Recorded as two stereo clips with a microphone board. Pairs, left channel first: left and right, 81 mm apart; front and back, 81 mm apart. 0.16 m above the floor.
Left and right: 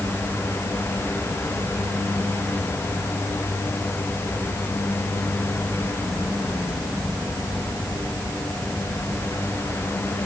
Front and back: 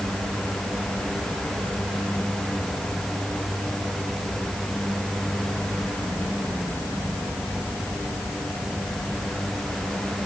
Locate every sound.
Only background noise.